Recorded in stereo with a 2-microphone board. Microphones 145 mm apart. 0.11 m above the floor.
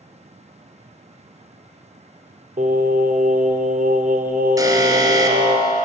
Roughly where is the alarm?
Right.